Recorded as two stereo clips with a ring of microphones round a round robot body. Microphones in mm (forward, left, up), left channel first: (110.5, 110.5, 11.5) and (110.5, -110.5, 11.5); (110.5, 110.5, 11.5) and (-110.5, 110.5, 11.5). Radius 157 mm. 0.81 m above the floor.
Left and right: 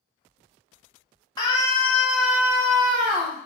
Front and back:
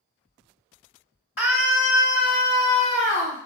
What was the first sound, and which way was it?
A scream, 20° left.